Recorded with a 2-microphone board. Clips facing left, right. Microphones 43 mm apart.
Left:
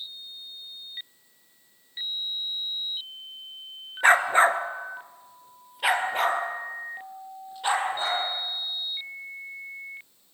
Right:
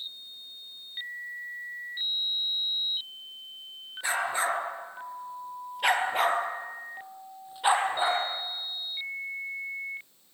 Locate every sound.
4.0 s a dog barking: 50° left (ahead or behind), 1.3 m; by 8.2 s 15° right (ahead or behind), 3.5 m